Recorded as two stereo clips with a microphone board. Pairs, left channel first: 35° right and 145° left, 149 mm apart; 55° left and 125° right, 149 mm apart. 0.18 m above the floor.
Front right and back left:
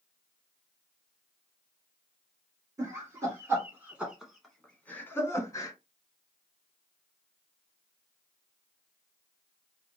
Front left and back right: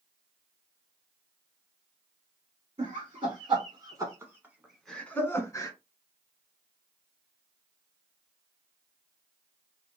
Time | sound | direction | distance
2.8 | laughter | 155° right | 1.6 m